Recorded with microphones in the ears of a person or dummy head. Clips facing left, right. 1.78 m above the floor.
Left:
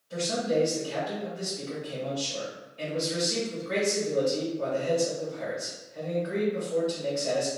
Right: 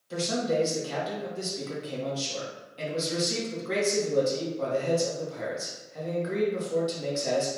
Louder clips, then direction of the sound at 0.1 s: Even; 65° right (ahead or behind).